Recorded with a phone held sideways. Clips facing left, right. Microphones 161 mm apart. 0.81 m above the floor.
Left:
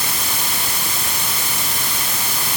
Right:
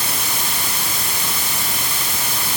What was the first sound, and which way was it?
Only background noise.